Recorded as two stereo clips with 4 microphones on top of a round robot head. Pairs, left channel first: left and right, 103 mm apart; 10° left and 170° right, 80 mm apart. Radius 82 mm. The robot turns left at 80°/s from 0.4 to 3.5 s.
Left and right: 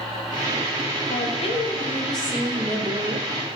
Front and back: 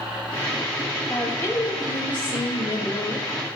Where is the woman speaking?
95° left, 2.0 m; by 3.3 s 80° right, 2.0 m.